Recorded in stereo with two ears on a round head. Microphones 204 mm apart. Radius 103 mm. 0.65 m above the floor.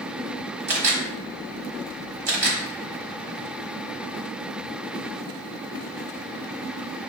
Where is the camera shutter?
35° right (ahead or behind), 1.2 m.